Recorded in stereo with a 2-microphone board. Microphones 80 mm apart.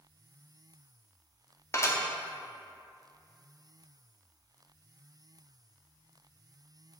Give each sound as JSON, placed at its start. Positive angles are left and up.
{"t": 1.7, "sound": "dishes clattering", "side_deg": 35, "distance_m": 0.8}